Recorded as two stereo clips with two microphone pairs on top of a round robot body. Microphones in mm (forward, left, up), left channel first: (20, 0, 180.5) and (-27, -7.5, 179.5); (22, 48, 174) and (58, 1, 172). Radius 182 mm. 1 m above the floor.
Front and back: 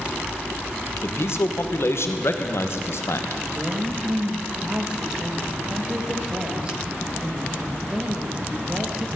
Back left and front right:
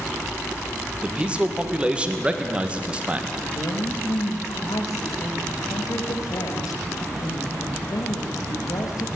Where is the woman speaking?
120° left, 1.4 m.